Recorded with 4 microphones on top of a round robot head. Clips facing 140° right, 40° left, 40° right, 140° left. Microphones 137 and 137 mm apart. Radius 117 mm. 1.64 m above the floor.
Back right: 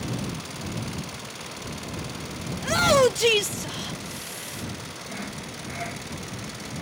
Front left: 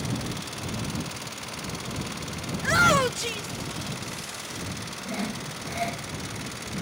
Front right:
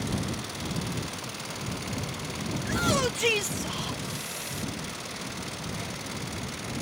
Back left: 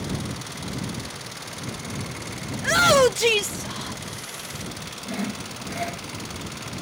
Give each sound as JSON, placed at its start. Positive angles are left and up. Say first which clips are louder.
{"t": 2.5, "sound": "a shout", "louder": "back right 4 dB, back left 10 dB", "azimuth_deg": 140}
{"t": 5.0, "sound": "sawing", "louder": "front left 5 dB, back left 7 dB", "azimuth_deg": 105}